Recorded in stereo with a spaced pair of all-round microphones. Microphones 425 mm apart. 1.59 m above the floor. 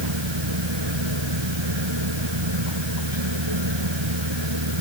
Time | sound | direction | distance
0.0 | a machine running | 80° right | ?